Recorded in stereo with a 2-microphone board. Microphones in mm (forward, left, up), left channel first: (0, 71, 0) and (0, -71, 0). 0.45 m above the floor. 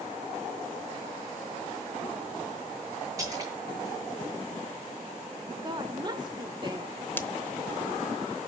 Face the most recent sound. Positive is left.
turn(degrees=15)  # may be behind; listen again after turning